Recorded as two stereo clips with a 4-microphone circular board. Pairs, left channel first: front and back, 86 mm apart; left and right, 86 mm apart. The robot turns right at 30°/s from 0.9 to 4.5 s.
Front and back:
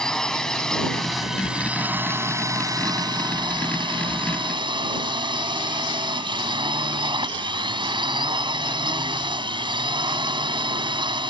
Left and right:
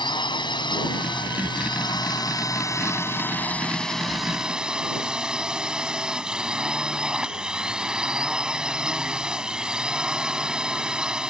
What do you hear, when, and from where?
0.0 s a drone: 80° left; by 11.3 s 170° right